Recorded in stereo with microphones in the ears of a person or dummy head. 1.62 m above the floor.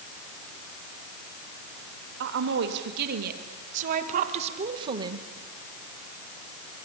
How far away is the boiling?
I don't hear boiling.